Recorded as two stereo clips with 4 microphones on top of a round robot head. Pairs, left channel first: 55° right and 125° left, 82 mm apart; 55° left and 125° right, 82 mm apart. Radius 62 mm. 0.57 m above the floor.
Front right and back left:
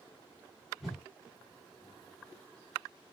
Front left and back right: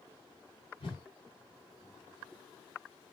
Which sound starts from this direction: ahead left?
A whoosh, at 0.8 s.